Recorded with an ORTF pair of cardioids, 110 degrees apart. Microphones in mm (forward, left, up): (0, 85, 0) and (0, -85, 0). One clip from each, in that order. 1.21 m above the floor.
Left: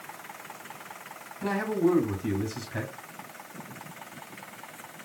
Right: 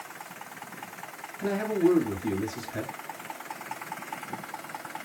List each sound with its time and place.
1.4 s a man speaking: 5° left, 1.8 m